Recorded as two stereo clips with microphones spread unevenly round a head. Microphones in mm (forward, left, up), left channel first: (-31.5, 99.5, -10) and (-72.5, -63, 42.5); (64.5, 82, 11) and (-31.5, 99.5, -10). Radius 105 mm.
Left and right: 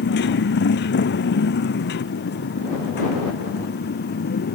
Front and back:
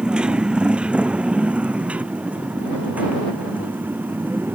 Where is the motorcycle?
90° left; by 4.5 s 100° left.